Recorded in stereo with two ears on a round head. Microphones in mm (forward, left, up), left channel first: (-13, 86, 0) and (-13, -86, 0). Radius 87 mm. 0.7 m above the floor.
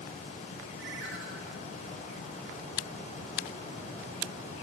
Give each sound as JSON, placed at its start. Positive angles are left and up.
{"t": 0.8, "sound": "a ringtone", "side_deg": -65, "distance_m": 6.0}